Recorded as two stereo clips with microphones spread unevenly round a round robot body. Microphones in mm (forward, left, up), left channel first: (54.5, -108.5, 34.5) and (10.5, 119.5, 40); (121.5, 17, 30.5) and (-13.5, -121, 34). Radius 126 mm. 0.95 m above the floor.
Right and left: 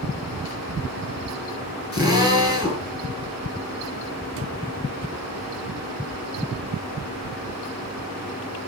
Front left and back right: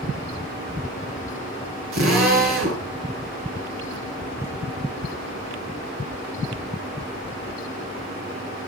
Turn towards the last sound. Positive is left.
turn(degrees=-130)